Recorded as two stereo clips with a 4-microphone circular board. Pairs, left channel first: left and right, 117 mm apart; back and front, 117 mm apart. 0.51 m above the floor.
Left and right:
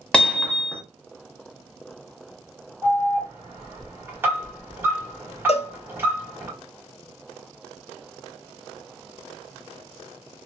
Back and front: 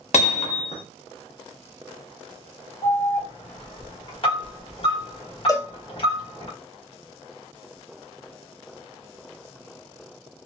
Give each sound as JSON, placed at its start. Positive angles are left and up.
{"t": 0.1, "sound": "hammering", "azimuth_deg": 170, "distance_m": 1.1}
{"t": 2.8, "sound": "an alarm", "azimuth_deg": -155, "distance_m": 1.5}
{"t": 5.5, "sound": "a cowbell", "azimuth_deg": 120, "distance_m": 0.6}